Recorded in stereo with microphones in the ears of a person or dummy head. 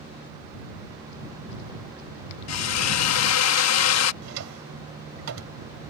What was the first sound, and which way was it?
A drill, 80° left.